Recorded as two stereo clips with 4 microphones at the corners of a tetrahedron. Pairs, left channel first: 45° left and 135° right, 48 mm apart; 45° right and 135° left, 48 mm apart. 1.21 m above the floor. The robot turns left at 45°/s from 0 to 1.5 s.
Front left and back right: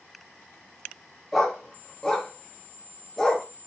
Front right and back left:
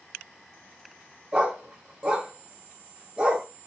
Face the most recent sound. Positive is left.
turn(degrees=115)